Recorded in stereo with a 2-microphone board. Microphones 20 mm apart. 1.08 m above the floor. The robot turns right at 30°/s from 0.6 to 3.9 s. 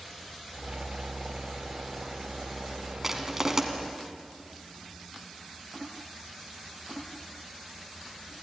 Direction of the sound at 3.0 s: 15° right (ahead or behind).